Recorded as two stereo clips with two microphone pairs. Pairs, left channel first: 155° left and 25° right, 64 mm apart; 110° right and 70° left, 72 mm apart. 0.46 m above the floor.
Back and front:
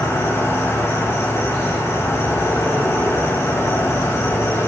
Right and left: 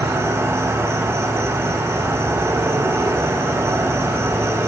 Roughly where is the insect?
Behind left.